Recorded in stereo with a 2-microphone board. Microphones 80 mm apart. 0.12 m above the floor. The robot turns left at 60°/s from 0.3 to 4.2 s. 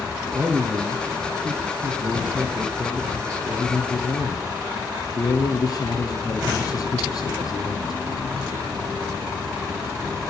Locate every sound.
0.3 s a man speaking: 15° right, 2.5 m; by 8.0 s 115° left, 2.5 m